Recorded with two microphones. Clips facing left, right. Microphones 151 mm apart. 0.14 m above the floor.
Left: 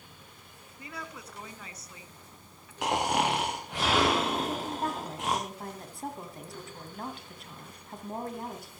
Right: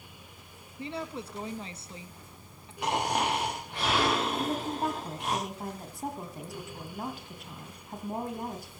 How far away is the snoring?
About 6 m.